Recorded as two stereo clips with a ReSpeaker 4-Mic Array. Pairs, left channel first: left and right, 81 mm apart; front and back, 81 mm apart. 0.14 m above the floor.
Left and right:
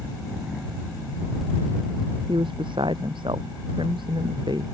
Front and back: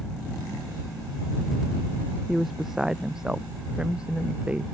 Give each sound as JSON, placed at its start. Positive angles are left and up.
{"t": 2.3, "sound": "a woman speaking", "azimuth_deg": -95}